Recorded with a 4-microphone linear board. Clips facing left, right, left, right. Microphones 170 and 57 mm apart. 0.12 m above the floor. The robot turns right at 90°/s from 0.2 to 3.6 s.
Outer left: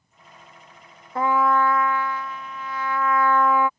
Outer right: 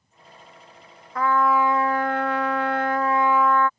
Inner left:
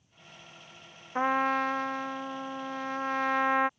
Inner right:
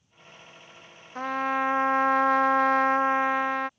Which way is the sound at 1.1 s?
150° left.